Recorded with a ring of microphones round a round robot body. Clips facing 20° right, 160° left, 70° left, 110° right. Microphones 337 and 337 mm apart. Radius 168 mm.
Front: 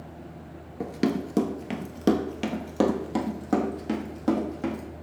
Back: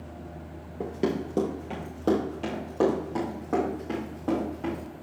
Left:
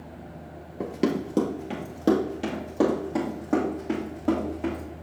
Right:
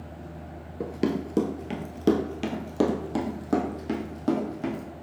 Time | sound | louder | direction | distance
0.8 | running footsteps | front 2 dB, left 1 dB | 20° right | 0.9 m